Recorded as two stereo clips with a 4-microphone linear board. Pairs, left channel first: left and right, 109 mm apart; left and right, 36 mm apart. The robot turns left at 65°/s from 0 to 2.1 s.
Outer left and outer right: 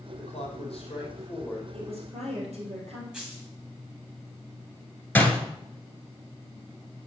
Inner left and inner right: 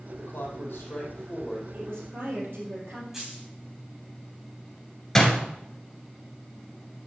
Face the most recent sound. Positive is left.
turn(degrees=15)  # may be behind; listen again after turning